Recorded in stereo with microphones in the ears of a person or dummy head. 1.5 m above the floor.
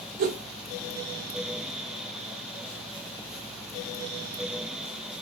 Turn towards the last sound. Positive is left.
turn(degrees=-45)  # may be behind; listen again after turning